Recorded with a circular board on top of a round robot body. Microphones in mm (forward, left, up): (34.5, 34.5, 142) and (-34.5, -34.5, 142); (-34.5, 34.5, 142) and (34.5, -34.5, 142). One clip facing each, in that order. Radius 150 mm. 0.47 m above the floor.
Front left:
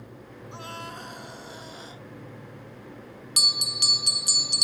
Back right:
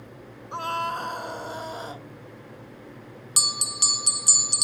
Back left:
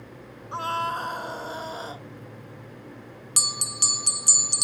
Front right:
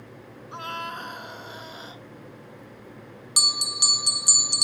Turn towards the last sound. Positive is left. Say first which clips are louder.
# back right 3 dB, front right 2 dB
turn(degrees=-110)